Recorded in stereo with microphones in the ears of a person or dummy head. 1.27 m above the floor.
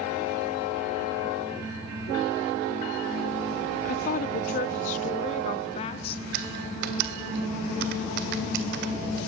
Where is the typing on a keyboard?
50° right (ahead or behind), 1.7 m.